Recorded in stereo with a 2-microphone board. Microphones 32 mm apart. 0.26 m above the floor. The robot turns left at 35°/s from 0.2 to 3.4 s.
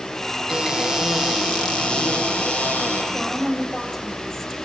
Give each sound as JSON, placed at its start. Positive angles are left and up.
{"t": 0.5, "sound": "a cupboard door", "azimuth_deg": -155, "distance_m": 6.0}
{"t": 3.1, "sound": "a woman speaking", "side_deg": 10, "distance_m": 7.0}